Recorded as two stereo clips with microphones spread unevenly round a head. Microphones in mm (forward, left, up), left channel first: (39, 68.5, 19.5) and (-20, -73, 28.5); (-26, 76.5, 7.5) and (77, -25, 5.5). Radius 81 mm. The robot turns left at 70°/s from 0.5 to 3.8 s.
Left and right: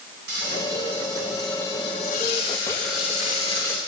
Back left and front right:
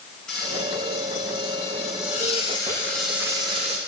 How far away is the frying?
About 10 m.